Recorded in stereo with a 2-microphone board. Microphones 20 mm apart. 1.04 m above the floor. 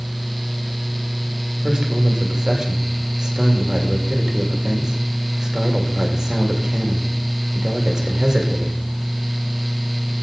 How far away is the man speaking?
About 2 m.